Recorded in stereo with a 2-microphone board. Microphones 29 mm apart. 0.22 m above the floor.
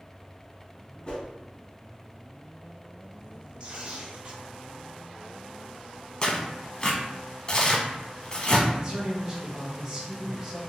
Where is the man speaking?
25° right (ahead or behind), 1.7 m.